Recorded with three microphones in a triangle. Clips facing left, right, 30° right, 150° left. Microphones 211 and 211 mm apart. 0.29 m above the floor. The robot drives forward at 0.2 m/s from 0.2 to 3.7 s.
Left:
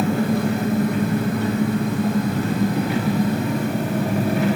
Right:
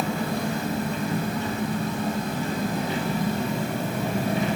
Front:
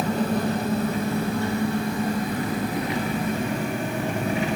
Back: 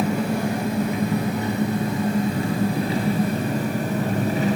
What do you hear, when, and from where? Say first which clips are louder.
0.0 s an engine running: left 7 dB, back 1 dB; 70° left, 1.3 m; by 4.6 s 100° left, 1.3 m